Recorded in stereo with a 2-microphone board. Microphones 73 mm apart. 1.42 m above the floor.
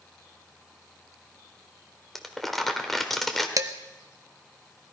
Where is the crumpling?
Centre (ahead or behind), 1.4 m.